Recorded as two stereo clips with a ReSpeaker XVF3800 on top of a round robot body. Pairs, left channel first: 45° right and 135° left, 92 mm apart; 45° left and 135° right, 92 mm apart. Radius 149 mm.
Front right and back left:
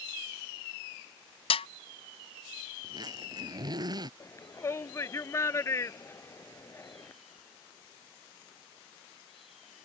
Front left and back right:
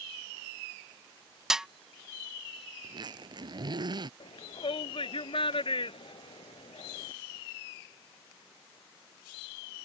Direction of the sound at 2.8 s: Straight behind.